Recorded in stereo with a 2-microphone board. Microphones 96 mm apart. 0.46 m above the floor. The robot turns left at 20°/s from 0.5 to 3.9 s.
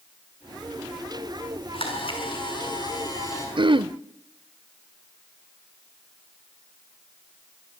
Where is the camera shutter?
65° left, 7 m; by 3.5 s 30° left, 7 m.